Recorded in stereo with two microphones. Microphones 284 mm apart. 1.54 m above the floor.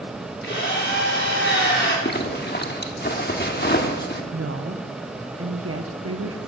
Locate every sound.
0.4 s a drill: 40° left (ahead or behind), 3.5 m
2.0 s a zipper: 35° left (ahead or behind), 1.2 m
4.3 s a woman speaking: 55° right (ahead or behind), 1.2 m